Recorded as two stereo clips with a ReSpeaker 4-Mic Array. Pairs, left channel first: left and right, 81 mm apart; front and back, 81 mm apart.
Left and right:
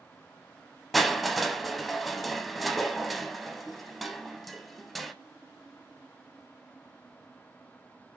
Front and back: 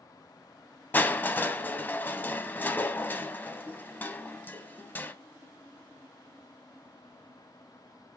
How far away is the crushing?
About 0.5 m.